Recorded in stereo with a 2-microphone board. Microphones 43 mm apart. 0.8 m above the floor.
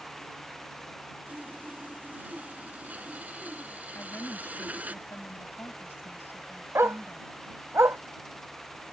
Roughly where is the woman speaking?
Left.